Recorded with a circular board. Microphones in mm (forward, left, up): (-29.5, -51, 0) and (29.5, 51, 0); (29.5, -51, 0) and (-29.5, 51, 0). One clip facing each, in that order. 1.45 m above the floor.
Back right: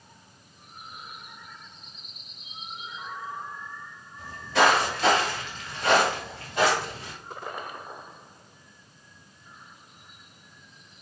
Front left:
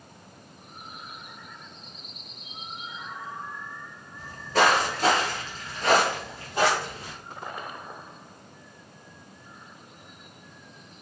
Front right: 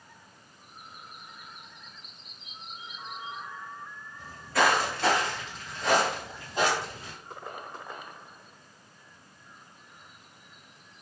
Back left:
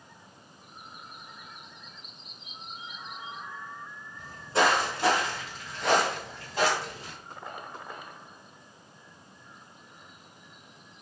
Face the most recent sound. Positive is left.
turn(degrees=0)